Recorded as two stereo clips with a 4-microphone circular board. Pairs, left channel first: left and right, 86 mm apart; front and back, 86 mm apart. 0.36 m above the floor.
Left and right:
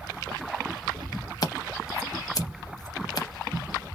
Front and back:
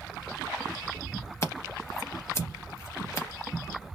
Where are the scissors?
55° left, 0.6 m.